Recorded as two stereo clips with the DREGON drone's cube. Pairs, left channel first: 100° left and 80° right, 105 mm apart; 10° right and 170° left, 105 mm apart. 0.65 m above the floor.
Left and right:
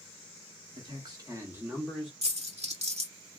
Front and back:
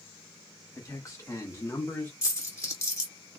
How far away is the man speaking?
About 1.1 m.